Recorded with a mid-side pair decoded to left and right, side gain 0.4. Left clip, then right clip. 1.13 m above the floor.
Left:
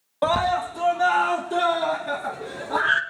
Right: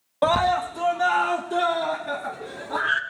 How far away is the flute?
No flute in this recording.